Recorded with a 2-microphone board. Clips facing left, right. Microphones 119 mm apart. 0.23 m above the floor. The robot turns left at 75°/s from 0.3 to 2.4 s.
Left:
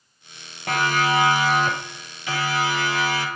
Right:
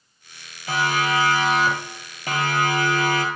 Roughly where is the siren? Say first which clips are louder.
Left 1 dB; left.